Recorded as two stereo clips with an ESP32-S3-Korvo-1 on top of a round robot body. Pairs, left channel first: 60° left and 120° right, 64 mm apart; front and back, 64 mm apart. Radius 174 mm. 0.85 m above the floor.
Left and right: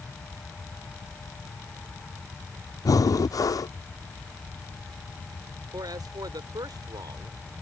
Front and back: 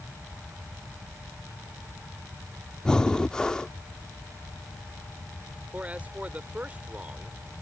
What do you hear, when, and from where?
2.9 s breathing: 80° left
5.7 s a man speaking: 110° right